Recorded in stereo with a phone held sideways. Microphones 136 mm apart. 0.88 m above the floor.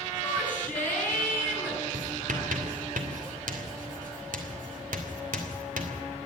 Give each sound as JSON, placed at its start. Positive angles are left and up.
{"t": 0.2, "sound": "a shout", "side_deg": 15, "distance_m": 9.5}
{"t": 1.9, "sound": "writing", "side_deg": -80, "distance_m": 3.0}